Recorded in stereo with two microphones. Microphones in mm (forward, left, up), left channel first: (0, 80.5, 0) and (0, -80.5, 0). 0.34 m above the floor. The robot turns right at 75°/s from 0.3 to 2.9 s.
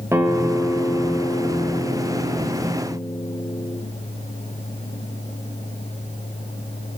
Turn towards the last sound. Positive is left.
turn(degrees=165)